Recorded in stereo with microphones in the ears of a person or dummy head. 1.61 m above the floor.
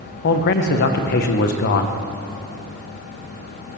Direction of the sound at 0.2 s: 50° left (ahead or behind).